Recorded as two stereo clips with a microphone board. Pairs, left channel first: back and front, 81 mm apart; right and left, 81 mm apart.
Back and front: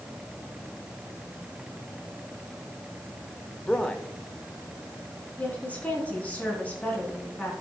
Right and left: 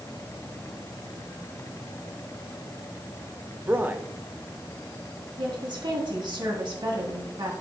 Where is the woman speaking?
110° left, 4 m.